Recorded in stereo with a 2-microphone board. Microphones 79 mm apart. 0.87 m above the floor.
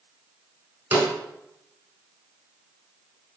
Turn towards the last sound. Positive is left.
turn(degrees=-25)  # may be behind; listen again after turning